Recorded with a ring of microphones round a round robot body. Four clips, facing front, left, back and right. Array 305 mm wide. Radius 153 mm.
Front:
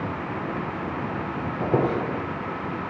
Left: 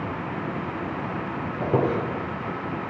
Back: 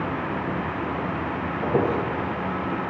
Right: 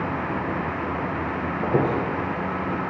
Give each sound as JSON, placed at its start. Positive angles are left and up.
{"t": 1.6, "sound": "a squeak", "azimuth_deg": 35, "distance_m": 6.0}